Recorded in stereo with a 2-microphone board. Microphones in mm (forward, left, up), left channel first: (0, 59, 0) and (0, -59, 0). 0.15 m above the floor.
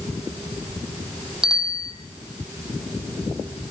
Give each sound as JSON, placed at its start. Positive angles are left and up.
{"t": 1.4, "sound": "a bicycle bell", "side_deg": -5, "distance_m": 4.0}